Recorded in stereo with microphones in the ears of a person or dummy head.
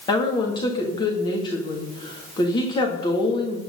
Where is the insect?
I don't hear an insect.